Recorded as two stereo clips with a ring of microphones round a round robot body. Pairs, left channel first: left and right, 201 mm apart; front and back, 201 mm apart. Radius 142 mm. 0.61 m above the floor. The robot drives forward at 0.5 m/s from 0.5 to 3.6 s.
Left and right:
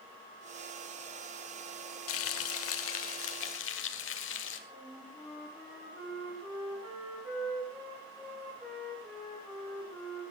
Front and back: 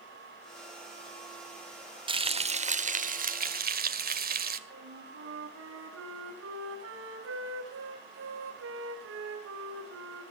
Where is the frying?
115° left, 1.4 m; by 4.6 s 135° left, 1.8 m.